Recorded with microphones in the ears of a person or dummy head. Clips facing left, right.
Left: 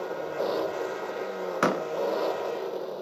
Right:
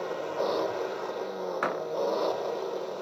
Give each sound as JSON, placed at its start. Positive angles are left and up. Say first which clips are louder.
{"t": 0.0, "sound": "an engine running", "louder": "even", "side_deg": -5}
{"t": 1.6, "sound": "a door slam", "louder": "left 8 dB", "side_deg": 40}